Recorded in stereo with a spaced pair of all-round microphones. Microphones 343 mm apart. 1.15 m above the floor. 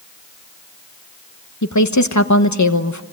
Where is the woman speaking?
55° left (ahead or behind), 1.2 m.